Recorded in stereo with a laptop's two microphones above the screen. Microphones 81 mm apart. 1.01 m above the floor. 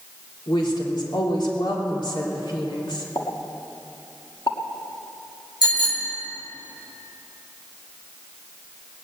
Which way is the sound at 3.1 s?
60° left (ahead or behind).